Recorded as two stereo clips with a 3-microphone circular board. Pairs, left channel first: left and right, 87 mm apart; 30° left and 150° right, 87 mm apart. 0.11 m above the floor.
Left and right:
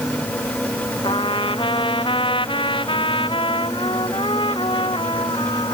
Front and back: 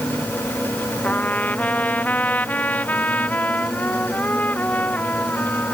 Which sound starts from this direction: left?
A trumpet, at 1.0 s.